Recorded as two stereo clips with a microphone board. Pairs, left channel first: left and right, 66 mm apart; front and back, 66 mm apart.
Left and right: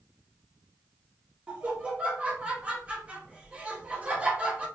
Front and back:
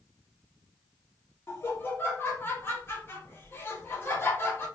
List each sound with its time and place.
1.5 s laughter: 30° right, 0.8 m